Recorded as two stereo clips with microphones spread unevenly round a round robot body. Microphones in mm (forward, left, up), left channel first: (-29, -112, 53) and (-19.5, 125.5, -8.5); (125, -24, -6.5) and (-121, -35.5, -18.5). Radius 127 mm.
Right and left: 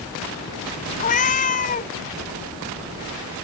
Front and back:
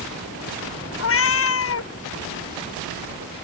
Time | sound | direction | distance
1.0 | a cat meowing | 30° right | ?